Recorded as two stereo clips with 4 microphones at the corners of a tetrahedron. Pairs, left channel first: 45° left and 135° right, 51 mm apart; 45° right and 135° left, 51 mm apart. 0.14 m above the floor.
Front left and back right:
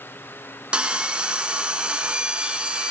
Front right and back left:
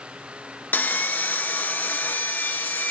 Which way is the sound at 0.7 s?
70° right.